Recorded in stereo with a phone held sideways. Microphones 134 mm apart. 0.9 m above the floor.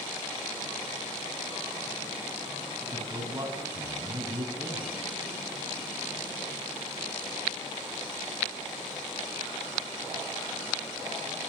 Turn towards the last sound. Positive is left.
turn(degrees=-30)  # may be behind; listen again after turning